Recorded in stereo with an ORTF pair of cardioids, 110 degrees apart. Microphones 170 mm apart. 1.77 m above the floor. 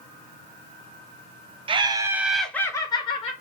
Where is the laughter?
30° right, 0.6 m; by 3.3 s 35° left, 0.8 m.